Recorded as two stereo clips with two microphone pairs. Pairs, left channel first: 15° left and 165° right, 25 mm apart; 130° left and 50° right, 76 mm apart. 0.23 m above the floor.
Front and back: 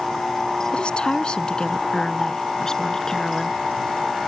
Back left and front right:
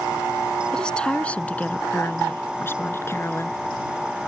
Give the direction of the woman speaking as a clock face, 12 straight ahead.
10 o'clock.